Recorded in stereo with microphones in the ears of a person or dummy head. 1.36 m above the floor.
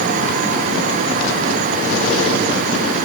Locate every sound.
Only background noise.